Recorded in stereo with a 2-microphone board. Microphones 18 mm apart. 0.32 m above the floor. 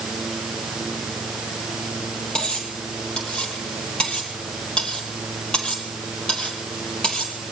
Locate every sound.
2.4 s cutlery clinking: 65° left (ahead or behind), 4.5 m